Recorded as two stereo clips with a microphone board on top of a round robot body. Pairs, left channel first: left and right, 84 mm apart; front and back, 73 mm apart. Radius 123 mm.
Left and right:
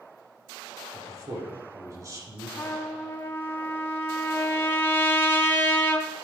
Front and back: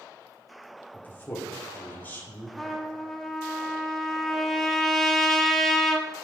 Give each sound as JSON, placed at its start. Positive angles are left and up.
{"t": 0.9, "sound": "a man speaking", "azimuth_deg": -55, "distance_m": 2.0}
{"t": 2.6, "sound": "a trumpet", "azimuth_deg": 80, "distance_m": 1.3}